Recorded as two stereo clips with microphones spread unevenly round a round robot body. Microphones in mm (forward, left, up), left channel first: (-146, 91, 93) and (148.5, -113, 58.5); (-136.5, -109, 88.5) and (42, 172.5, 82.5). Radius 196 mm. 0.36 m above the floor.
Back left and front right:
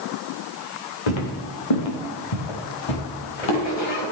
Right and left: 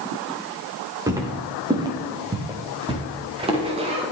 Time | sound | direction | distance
1.1 | footsteps | 140° left | 4 m